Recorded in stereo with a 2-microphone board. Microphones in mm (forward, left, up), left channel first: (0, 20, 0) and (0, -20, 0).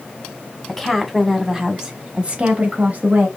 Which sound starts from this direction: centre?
A woman speaking, at 0.7 s.